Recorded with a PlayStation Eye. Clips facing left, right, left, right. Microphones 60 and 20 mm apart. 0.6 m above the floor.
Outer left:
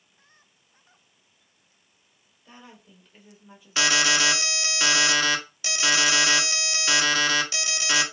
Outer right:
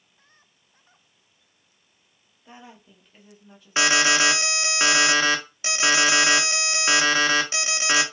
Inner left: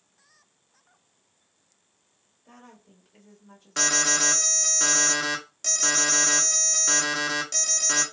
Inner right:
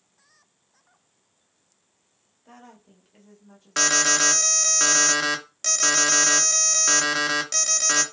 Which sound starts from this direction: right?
An alarm, at 3.8 s.